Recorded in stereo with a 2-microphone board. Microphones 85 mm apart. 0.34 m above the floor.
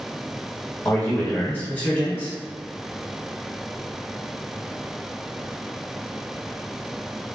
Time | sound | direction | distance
0.8 | a man speaking | 20° left (ahead or behind) | 0.9 m